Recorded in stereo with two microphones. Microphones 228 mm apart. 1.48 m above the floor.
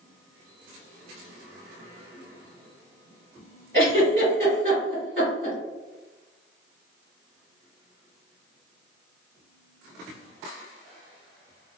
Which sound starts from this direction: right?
A giggle, at 3.7 s.